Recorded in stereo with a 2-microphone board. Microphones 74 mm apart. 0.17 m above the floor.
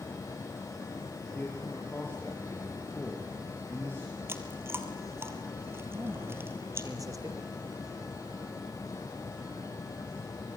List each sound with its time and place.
1.3 s a man speaking: 25° left (ahead or behind), 4.5 m
4.3 s chewing: 30° right (ahead or behind), 2.5 m
5.9 s a man speaking: 50° right (ahead or behind), 4.5 m